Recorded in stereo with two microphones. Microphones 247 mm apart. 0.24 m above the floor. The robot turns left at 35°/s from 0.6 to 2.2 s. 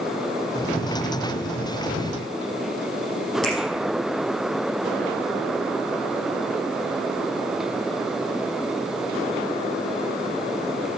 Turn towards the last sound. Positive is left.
turn(degrees=5)  # may be behind; listen again after turning